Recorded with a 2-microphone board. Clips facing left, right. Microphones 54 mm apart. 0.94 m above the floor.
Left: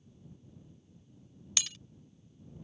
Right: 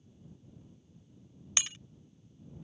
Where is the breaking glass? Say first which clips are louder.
Right 1 dB; 25° right (ahead or behind).